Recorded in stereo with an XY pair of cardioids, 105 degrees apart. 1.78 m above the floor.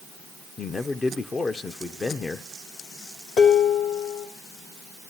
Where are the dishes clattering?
60° left, 4 m.